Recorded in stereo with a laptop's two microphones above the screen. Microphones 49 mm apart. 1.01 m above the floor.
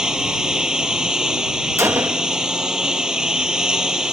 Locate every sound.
0.0 s a lawn mower: 15° right (ahead or behind)
1.8 s a gunshot: 75° right (ahead or behind)